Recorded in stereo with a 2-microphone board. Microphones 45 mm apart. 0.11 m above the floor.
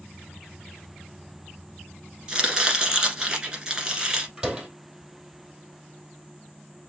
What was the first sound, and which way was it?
Chopping, 20° right (ahead or behind).